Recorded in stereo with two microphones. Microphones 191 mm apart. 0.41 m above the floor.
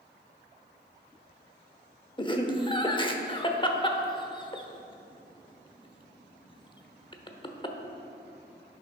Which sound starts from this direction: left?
Laughter, at 2.2 s.